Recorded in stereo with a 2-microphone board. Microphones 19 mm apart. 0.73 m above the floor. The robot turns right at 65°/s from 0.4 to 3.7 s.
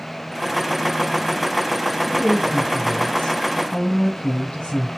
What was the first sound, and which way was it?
A woman speaking, 25° right.